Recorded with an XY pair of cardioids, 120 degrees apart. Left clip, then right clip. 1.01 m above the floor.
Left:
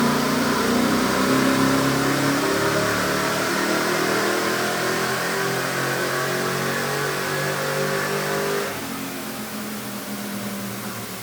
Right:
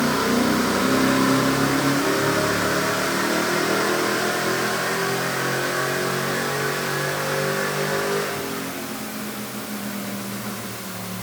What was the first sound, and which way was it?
Only background noise.